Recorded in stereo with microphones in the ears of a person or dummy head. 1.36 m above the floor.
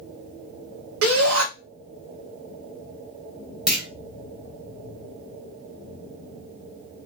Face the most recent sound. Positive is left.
turn(degrees=-5)  # may be behind; listen again after turning